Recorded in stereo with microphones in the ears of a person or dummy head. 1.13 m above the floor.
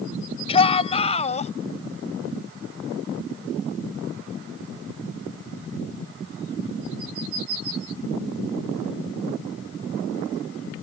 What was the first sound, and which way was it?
A shout, 30° left (ahead or behind).